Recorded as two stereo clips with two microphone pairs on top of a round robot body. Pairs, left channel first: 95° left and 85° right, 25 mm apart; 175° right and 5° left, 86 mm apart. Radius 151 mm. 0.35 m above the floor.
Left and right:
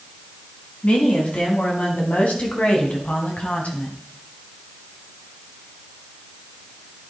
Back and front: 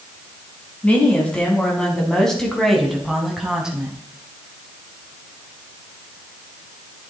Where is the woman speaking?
110° left, 4 m; by 4.0 s 85° left, 3.5 m.